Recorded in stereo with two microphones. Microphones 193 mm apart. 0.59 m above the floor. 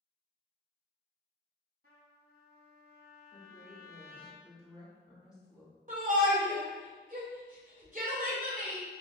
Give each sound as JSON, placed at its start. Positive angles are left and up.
{"t": 1.8, "sound": "a trumpet", "side_deg": -55, "distance_m": 0.9}
{"t": 3.3, "sound": "a woman speaking", "side_deg": 15, "distance_m": 1.8}
{"t": 5.9, "sound": "a shout", "side_deg": -45, "distance_m": 2.0}